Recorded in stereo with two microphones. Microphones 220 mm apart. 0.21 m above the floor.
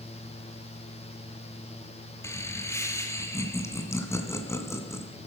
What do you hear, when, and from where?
2.2 s laughter: 10° left (ahead or behind), 2 m